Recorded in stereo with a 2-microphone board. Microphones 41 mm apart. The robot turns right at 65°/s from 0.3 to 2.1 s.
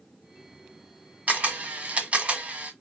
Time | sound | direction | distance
1.3 | a camera shutter | 120° right | 1.3 m